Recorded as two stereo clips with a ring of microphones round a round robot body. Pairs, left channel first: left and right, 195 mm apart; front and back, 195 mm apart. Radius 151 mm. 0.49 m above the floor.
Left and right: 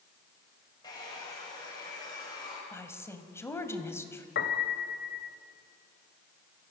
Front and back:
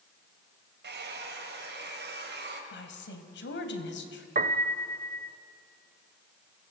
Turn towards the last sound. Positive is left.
turn(degrees=135)